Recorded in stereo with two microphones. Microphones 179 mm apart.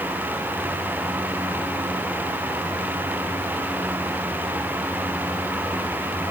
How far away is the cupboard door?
No cupboard door in this recording.